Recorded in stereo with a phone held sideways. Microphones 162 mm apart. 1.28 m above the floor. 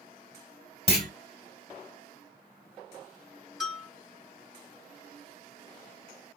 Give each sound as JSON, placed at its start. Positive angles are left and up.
{"t": 0.9, "sound": "a clunk", "side_deg": 40, "distance_m": 1.2}
{"t": 3.6, "sound": "a bell", "side_deg": -5, "distance_m": 1.7}